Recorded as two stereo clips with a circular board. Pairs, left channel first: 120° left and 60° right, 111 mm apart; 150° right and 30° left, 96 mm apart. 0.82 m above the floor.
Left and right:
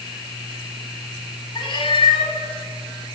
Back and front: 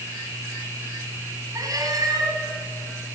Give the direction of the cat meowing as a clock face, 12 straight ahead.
9 o'clock.